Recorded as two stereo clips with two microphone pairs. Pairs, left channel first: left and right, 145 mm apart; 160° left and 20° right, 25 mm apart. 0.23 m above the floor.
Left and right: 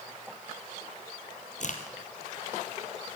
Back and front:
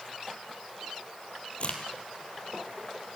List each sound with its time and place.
1.6 s a crack: 120° left, 2.5 m